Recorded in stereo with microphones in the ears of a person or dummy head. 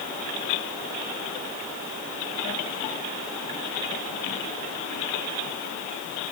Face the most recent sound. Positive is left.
No sound to turn to.